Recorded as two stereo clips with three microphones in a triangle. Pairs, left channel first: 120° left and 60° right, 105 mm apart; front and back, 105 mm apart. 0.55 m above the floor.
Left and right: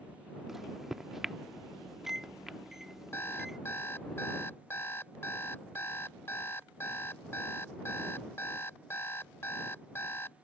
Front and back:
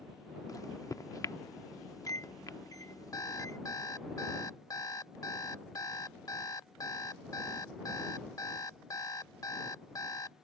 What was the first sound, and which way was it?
A microwave, 25° left.